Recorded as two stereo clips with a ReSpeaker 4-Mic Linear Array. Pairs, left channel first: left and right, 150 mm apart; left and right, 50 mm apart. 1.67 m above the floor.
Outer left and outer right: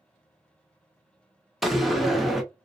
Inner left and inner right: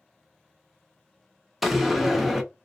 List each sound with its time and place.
1.6 s a door slam: centre (ahead or behind), 0.6 m